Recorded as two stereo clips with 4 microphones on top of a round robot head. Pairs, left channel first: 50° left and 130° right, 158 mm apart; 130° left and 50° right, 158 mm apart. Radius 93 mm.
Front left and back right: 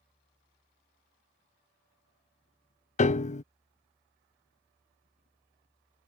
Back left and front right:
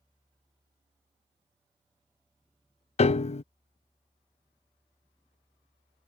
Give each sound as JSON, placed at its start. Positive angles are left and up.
{"t": 3.0, "sound": "a piano", "azimuth_deg": 85}